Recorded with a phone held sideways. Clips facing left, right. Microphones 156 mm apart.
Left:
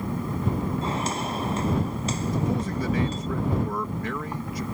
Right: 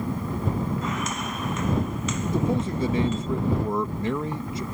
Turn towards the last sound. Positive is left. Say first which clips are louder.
# right 4 dB
turn(degrees=-25)  # may be behind; listen again after turning